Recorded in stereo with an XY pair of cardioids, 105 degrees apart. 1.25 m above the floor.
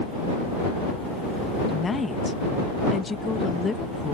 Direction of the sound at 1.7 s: 25° left.